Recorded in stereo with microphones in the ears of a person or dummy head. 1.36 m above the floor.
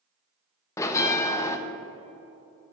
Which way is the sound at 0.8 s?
15° left (ahead or behind).